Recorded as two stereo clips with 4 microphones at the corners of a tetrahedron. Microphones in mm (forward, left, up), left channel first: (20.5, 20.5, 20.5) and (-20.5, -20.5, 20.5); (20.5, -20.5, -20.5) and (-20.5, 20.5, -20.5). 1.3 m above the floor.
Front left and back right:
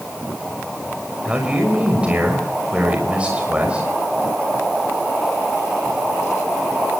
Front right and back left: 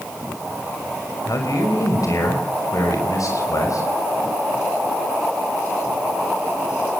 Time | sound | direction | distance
1.2 | a man speaking | 65° right | 5.5 m